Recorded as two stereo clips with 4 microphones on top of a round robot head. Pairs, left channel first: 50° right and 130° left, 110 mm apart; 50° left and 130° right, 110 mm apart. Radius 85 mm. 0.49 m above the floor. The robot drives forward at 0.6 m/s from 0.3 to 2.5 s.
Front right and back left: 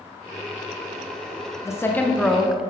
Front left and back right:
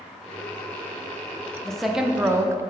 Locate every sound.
1.6 s a woman speaking: 30° right, 0.7 m; by 2.6 s 150° right, 0.7 m